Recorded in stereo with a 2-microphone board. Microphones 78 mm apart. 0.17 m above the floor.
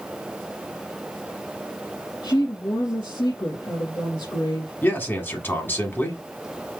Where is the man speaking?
25° left (ahead or behind), 1.3 m.